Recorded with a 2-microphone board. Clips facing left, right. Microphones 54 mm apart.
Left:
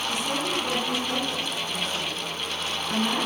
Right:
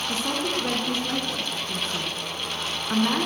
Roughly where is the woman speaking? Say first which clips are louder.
Right 2 dB; right.